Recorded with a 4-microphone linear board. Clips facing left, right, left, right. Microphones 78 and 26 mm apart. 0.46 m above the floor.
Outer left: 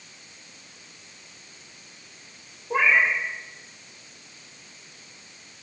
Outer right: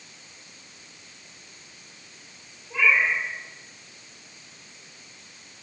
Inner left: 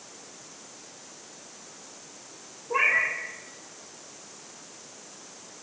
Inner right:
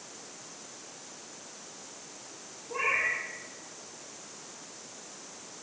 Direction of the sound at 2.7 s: 45° left (ahead or behind).